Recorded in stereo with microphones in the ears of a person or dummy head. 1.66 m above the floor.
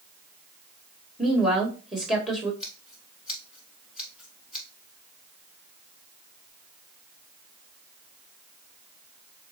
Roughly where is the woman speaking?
Centre.